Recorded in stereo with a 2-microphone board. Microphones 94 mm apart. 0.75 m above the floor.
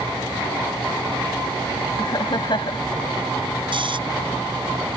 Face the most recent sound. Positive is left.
turn(degrees=-60)  # may be behind; listen again after turning